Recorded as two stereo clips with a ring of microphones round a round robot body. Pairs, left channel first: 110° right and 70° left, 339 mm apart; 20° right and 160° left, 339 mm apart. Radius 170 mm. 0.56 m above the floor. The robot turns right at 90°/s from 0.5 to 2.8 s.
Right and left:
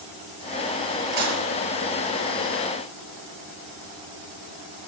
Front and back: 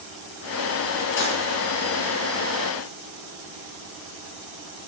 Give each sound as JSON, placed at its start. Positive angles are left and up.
{"t": 1.1, "sound": "dishes clattering", "azimuth_deg": 30, "distance_m": 8.5}